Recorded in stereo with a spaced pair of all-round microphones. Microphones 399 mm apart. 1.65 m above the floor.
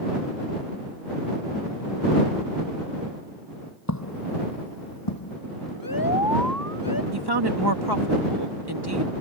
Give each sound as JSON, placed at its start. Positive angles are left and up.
{"t": 3.9, "sound": "footsteps", "side_deg": 45}
{"t": 5.8, "sound": "an alarm", "side_deg": 60}
{"t": 7.1, "sound": "a woman speaking", "side_deg": -70}